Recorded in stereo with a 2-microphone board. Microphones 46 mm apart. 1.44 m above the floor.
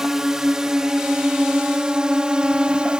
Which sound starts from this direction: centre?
A drone, at 0.0 s.